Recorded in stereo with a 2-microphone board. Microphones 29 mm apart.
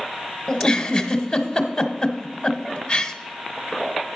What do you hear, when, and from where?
0.5 s a giggle: 25° left (ahead or behind), 1.0 m